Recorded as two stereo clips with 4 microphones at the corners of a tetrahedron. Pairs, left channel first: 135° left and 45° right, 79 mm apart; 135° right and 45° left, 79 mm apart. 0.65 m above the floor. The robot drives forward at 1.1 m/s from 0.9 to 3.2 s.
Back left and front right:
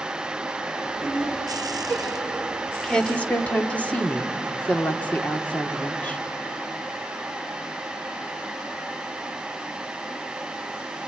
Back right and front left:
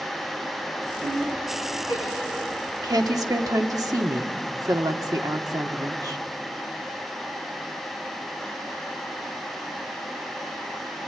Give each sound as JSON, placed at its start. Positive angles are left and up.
{"t": 1.0, "sound": "laughter", "azimuth_deg": 50, "distance_m": 7.5}
{"t": 2.8, "sound": "a woman speaking", "azimuth_deg": 55, "distance_m": 1.8}